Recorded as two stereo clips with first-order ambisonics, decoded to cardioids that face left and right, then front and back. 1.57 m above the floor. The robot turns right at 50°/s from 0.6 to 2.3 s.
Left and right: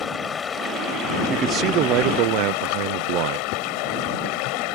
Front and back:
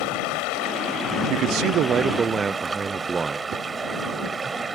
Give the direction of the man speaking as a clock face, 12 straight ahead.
5 o'clock.